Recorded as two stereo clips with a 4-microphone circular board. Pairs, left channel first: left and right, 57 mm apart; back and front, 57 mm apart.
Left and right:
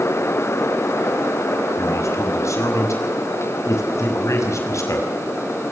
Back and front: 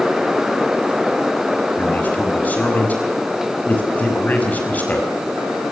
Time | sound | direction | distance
1.8 | a man speaking | 120° left | 5.5 m